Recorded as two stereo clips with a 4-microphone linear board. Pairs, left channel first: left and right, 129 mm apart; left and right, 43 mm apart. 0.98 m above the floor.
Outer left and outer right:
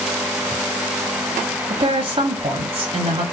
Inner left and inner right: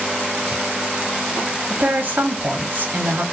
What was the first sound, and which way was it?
A woman speaking, 40° right (ahead or behind).